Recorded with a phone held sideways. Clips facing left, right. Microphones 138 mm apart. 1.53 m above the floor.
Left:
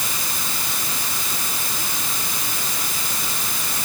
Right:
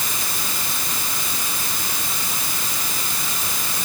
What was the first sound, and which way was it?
Only background noise.